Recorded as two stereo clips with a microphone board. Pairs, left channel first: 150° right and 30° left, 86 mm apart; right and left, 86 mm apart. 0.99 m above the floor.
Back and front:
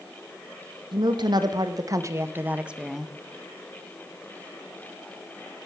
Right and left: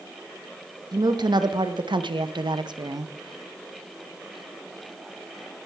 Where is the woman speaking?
55° left, 1.3 m; by 3.1 s 125° left, 0.8 m.